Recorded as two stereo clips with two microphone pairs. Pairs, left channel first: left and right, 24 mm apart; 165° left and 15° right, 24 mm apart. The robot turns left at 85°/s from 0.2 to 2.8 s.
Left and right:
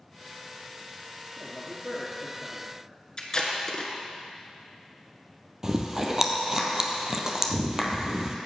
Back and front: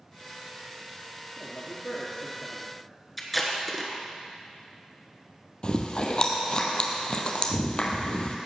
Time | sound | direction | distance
1.4 | a man speaking | 145° right | 1.6 m
3.2 | tape being pulled | 80° left | 1.3 m
5.6 | chewing | 155° right | 0.9 m